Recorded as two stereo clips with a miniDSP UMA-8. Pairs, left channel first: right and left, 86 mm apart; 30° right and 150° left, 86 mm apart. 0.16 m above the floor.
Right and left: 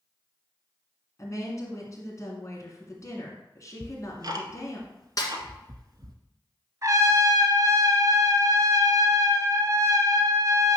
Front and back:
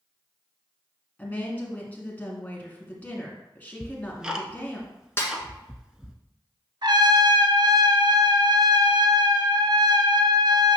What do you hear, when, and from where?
1.2 s a woman speaking: 90° right, 1.9 m
3.8 s ticking: 70° left, 0.9 m
5.2 s a snare drum: 75° right, 1.5 m
6.8 s a trumpet: 135° left, 1.0 m